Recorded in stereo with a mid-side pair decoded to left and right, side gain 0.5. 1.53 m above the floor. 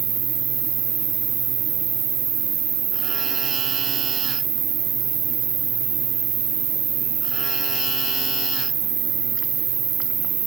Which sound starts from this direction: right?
An insect, at 0.0 s.